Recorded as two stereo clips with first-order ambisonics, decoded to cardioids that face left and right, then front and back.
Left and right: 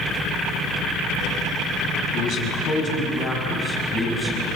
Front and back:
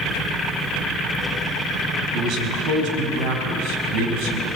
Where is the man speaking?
140° left, 5.5 m; by 4.5 s 175° left, 5.5 m.